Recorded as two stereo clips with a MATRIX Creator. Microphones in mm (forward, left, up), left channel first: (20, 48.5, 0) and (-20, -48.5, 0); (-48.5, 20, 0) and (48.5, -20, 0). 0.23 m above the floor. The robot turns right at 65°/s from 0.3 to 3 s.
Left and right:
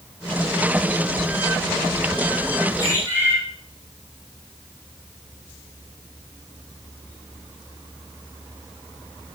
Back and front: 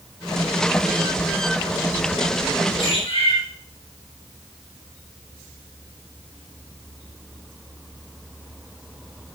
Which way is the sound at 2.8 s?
120° left.